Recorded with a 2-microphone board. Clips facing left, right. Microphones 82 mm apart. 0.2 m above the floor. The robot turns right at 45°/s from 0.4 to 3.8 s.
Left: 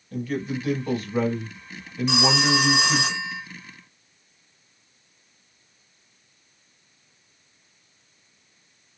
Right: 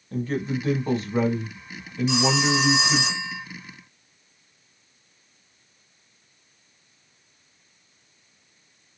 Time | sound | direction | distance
0.1 | a man speaking | 70° right | 1.2 m
2.1 | a phone ringing | 75° left | 1.2 m